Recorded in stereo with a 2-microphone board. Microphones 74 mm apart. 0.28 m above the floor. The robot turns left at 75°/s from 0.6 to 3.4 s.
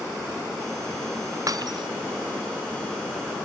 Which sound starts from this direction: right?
Breaking glass, at 1.5 s.